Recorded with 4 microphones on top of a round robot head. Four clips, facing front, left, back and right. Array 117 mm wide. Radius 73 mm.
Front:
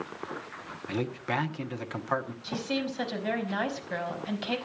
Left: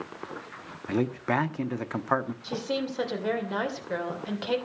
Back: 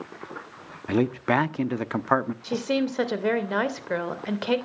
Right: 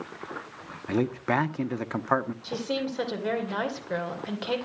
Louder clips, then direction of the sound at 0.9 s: Right 1 dB, back 9 dB; 175° right.